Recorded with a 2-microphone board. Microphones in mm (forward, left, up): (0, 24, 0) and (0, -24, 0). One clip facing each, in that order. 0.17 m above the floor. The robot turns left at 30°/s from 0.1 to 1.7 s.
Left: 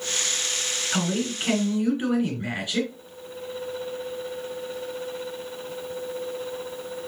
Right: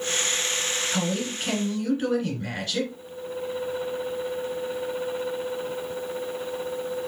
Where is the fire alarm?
I don't hear a fire alarm.